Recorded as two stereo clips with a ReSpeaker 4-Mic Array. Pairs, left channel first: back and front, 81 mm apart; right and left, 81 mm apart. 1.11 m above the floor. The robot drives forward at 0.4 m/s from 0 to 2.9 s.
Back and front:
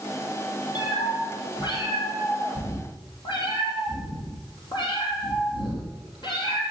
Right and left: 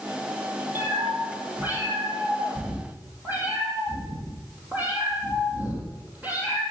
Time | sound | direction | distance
0.8 | a cat meowing | 155° left | 4 m